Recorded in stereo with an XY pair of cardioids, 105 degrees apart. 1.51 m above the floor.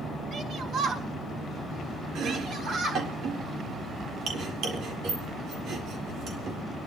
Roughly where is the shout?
Ahead right.